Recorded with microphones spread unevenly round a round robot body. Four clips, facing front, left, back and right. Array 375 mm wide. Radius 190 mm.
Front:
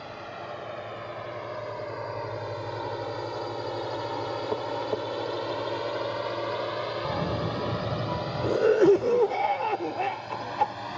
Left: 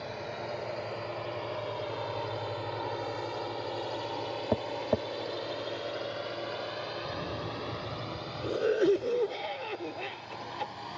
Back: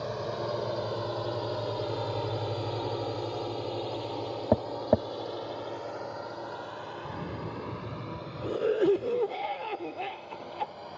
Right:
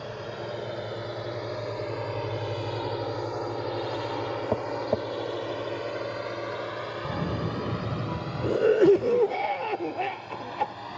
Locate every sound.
0.0 s a drone: 150° right; by 11.0 s 10° right
4.5 s tapping: straight behind
7.0 s a cough: 45° right